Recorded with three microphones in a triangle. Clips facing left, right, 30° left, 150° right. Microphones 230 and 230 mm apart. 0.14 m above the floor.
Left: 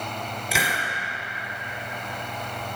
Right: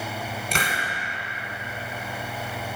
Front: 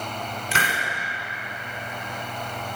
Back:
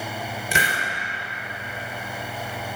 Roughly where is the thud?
No thud in this recording.